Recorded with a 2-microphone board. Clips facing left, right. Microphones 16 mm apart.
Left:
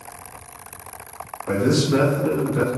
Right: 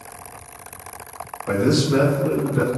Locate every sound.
1.5 s a man speaking: 45° right (ahead or behind), 0.7 m; by 2.7 s 50° left (ahead or behind), 1.2 m